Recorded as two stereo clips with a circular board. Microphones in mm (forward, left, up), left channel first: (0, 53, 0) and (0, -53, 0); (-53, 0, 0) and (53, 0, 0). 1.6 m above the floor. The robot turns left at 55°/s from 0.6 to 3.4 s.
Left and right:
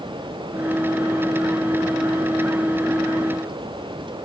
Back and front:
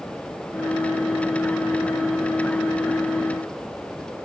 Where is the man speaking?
I don't hear a man speaking.